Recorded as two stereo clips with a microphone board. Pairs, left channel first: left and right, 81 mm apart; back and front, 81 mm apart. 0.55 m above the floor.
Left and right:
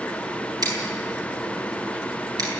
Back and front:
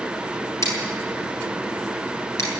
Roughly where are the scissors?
Behind right.